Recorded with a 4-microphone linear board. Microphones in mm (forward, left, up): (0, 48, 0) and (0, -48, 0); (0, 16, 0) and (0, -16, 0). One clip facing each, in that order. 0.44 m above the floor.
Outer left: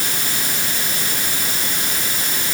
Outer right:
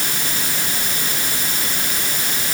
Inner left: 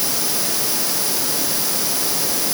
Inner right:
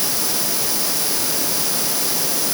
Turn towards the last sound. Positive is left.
No sound to turn to.